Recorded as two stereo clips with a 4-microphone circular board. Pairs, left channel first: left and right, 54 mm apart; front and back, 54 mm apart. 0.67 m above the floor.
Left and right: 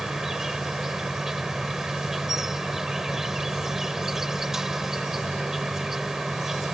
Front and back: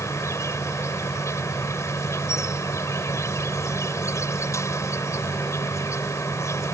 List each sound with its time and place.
0.0 s an insect: 10° right